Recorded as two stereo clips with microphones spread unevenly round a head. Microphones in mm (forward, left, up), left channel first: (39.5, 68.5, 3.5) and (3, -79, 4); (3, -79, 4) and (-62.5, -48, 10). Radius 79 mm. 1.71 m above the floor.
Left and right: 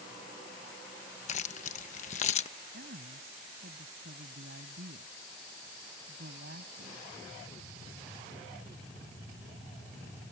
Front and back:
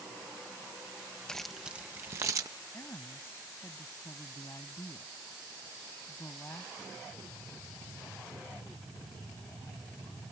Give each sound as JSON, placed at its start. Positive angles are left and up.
{"t": 1.3, "sound": "keys jangling", "azimuth_deg": 60}
{"t": 2.7, "sound": "a woman speaking", "azimuth_deg": -80}